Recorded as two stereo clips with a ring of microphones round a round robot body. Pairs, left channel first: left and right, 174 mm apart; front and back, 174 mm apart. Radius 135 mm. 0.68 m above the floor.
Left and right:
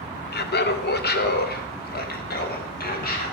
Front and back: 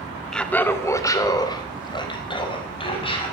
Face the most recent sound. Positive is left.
turn(degrees=60)